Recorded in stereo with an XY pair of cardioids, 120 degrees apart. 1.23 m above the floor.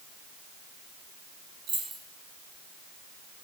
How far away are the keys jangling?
About 1.0 m.